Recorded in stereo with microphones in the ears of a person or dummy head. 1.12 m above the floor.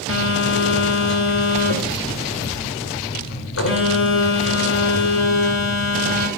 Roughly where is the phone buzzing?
Left.